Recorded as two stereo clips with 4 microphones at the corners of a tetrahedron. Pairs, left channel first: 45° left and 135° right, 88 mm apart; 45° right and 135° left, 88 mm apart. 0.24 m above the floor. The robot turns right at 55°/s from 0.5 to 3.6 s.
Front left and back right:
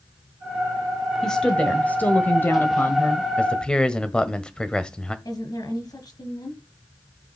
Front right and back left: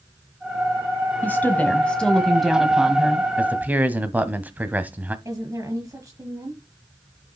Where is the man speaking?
95° left, 1.2 m; by 5.2 s 105° left, 1.2 m.